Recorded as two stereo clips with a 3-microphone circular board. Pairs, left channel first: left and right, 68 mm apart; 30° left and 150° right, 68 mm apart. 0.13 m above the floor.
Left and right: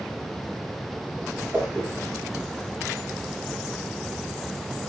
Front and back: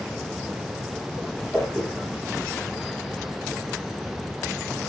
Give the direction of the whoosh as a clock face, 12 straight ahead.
1 o'clock.